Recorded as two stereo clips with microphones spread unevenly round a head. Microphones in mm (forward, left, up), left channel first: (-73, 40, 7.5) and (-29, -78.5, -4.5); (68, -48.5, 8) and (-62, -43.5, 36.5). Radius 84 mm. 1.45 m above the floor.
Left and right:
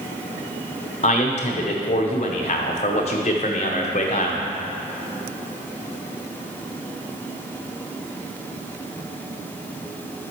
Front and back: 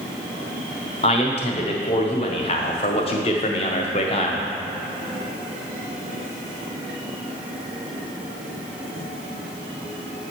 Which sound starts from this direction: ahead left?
A man speaking, at 1.0 s.